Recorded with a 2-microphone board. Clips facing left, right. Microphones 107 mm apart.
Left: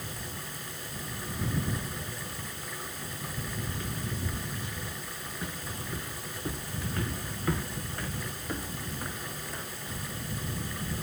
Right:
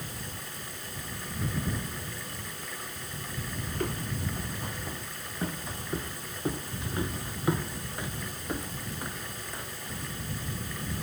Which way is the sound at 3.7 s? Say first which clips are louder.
Right 3 dB; 55° right (ahead or behind).